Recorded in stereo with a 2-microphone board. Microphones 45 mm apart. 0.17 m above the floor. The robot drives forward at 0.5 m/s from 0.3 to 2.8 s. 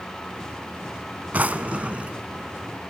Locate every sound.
1.3 s a drawer: 30° right (ahead or behind), 0.8 m; by 2.1 s 25° right (ahead or behind), 1.0 m